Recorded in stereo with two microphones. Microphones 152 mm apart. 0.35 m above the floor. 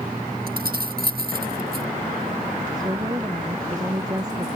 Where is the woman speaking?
25° right (ahead or behind).